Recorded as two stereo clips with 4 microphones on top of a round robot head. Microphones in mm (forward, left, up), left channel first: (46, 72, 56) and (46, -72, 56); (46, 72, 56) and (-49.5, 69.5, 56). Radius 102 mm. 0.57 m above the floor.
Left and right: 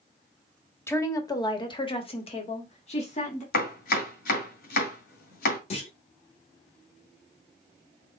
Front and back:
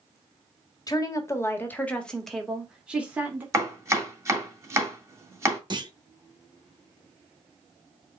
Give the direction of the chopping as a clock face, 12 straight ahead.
8 o'clock.